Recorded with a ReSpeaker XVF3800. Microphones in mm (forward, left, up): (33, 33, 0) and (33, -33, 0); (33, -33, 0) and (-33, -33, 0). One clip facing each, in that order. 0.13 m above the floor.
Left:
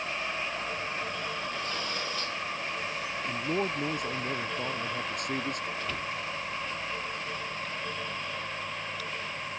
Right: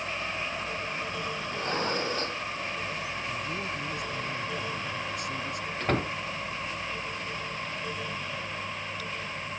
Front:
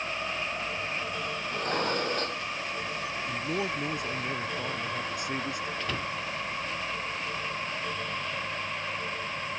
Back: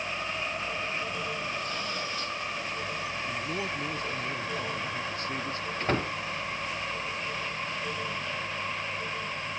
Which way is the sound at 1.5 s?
40° right.